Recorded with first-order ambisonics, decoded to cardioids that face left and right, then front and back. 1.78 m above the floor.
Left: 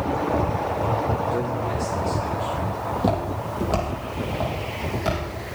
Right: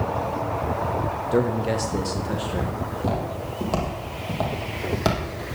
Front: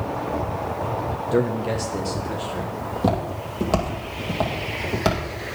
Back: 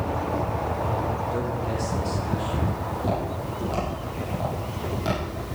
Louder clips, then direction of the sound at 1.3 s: Right 3 dB, front 5 dB; 30° right.